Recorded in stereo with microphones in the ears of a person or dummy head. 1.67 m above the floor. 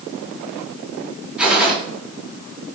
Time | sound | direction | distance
1.4 | a gunshot | 10° right (ahead or behind) | 4 m